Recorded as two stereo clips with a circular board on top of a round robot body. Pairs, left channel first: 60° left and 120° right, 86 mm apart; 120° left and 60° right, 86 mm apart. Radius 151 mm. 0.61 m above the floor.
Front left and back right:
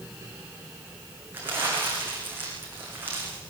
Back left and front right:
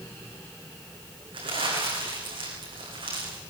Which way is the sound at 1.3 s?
55° right.